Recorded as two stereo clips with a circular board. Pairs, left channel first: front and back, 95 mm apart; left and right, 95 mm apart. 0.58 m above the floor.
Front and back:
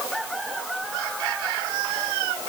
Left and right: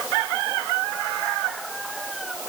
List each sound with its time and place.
Only background noise.